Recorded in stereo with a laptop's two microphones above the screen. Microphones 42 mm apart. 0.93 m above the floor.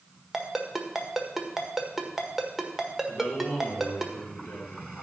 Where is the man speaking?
60° left (ahead or behind), 3 m.